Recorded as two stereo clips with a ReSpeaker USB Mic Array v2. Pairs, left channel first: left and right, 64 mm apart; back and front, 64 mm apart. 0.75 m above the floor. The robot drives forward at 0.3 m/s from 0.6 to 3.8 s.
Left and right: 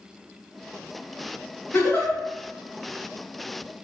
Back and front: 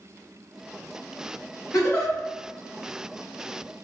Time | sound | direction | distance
1.7 | a giggle | 140° left | 1.5 m